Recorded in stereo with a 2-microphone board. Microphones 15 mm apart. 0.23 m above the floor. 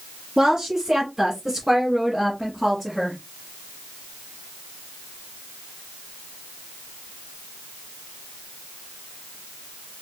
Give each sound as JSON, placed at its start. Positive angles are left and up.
{"t": 0.4, "sound": "a woman speaking", "side_deg": -50, "distance_m": 2.0}